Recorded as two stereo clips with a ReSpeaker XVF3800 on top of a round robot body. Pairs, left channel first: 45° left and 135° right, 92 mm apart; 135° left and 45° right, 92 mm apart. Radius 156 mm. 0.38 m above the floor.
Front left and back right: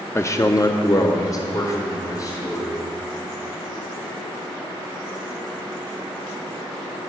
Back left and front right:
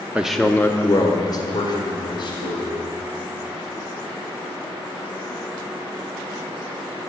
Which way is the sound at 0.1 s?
15° left.